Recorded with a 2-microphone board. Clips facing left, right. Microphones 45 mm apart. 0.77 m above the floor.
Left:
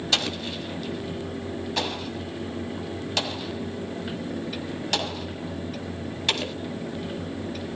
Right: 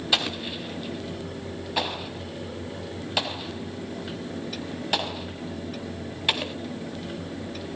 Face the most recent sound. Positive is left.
turn(degrees=-15)  # may be behind; listen again after turning